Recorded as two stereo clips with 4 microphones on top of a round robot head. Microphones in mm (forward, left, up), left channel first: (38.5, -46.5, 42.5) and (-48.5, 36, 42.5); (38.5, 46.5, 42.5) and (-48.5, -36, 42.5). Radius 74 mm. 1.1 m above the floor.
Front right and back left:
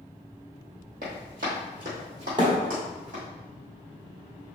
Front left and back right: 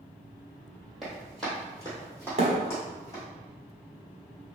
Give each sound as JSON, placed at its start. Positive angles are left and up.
{"t": 1.0, "sound": "running footsteps", "azimuth_deg": 135, "distance_m": 2.0}
{"t": 2.4, "sound": "a thud", "azimuth_deg": -170, "distance_m": 1.2}